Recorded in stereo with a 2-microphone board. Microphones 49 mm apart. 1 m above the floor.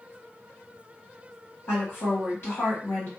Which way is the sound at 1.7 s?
55° left (ahead or behind).